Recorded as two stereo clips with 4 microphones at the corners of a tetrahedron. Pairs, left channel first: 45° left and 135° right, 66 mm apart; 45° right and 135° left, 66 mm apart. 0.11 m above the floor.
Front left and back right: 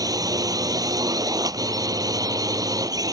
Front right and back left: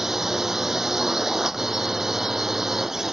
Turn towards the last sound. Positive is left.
turn(degrees=-140)